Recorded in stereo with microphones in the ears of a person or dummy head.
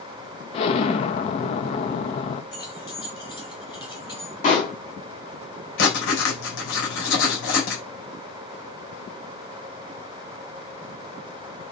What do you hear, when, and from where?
0.5 s an explosion: 35° left (ahead or behind), 0.8 m
2.5 s keys jangling: 25° left (ahead or behind), 2.5 m
4.4 s a pop: 40° left (ahead or behind), 3 m
5.8 s writing: 70° left (ahead or behind), 3.5 m